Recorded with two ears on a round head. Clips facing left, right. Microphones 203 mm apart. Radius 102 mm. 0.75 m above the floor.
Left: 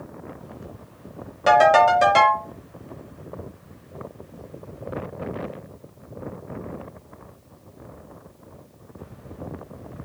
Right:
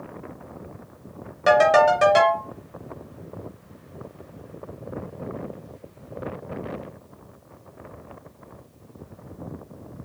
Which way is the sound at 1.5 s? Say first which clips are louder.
Even; 10° right (ahead or behind).